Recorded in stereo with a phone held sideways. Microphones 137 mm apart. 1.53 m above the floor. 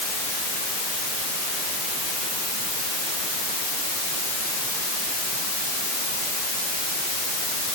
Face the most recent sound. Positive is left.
No sound to turn to.